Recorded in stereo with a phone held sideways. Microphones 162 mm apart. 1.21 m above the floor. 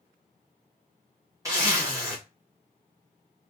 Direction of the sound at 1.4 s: 20° right (ahead or behind).